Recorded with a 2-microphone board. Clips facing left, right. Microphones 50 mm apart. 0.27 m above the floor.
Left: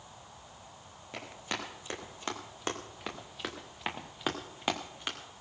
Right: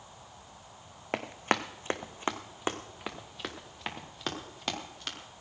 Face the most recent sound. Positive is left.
turn(degrees=20)  # may be behind; listen again after turning